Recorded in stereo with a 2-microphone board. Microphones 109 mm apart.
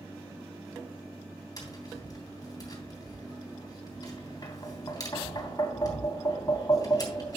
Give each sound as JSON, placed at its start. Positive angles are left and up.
{"t": 1.6, "sound": "tapping", "side_deg": 35, "distance_m": 3.0}